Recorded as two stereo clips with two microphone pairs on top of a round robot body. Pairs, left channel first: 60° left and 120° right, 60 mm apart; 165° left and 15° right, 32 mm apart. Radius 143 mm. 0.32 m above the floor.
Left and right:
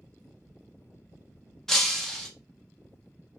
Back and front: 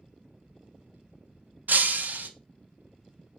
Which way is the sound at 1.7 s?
25° right.